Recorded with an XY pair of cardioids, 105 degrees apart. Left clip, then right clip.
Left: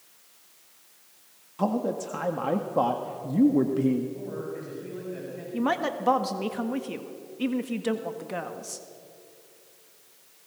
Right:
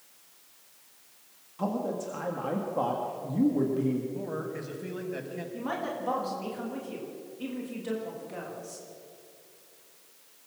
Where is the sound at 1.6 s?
35° left, 1.6 m.